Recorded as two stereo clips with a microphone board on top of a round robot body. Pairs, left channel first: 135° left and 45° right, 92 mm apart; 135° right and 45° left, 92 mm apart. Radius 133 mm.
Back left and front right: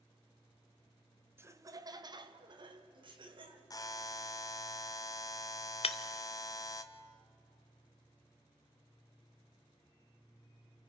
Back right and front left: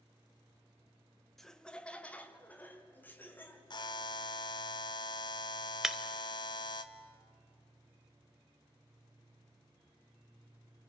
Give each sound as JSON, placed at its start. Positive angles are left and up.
{"t": 1.4, "sound": "laughter", "azimuth_deg": -50, "distance_m": 1.2}
{"t": 3.7, "sound": "a buzzer", "azimuth_deg": -175, "distance_m": 1.0}
{"t": 5.8, "sound": "breaking glass", "azimuth_deg": 130, "distance_m": 0.8}